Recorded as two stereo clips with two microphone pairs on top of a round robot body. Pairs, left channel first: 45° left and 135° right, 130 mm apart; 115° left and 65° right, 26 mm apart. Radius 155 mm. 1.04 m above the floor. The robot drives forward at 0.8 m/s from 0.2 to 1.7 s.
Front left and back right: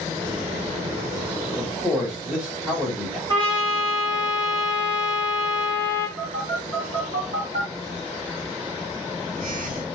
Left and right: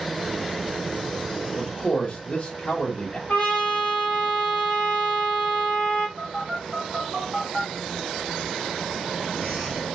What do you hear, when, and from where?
1.6 s a man speaking: 155° left, 1.0 m; by 3.2 s 160° left, 1.1 m
3.3 s a trumpet: 155° left, 1.1 m
6.2 s a phone buzzing: 155° right, 1.8 m